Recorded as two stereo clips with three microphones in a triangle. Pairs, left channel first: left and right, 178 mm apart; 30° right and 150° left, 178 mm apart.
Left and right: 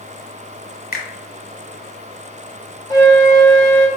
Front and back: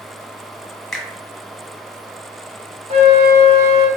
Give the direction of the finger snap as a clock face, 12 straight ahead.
10 o'clock.